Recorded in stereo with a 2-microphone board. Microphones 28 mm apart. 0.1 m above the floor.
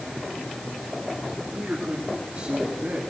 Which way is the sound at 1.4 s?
65° right (ahead or behind).